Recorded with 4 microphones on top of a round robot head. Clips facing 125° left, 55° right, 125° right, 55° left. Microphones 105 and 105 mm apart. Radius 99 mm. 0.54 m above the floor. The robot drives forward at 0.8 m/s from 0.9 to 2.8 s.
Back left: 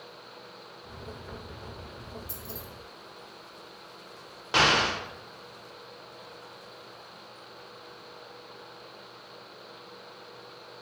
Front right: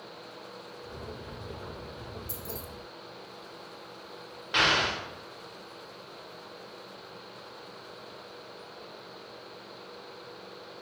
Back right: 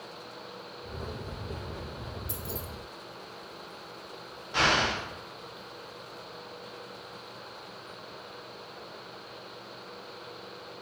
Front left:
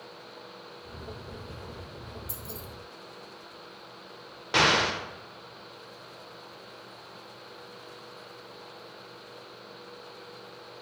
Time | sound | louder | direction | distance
2.3 | keys jangling | front right 2 dB, back right 4 dB | 30° right | 0.9 m
4.5 | an explosion | back left 3 dB, front left 2 dB | 70° left | 0.8 m